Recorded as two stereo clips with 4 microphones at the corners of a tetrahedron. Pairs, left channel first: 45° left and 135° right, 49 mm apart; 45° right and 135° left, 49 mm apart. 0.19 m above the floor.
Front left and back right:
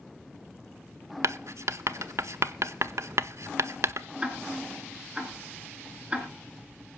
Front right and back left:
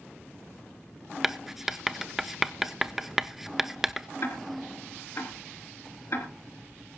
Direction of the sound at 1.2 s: 140° right.